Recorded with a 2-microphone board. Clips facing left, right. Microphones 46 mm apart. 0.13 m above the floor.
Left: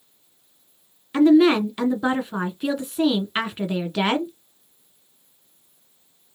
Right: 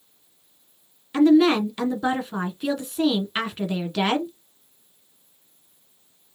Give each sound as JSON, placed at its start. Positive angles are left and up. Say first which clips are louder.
{"t": 1.1, "sound": "a woman speaking", "louder": "left 1 dB", "side_deg": 10, "distance_m": 1.1}